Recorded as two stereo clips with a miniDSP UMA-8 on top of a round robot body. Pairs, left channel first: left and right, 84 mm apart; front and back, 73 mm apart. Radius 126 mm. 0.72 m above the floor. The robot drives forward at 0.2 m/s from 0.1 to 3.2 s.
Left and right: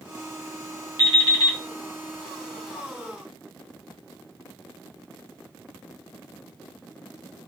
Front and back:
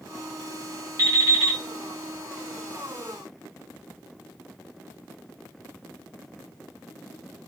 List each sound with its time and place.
1.0 s an alarm clock: 130° left, 1.0 m; by 1.6 s 135° left, 1.1 m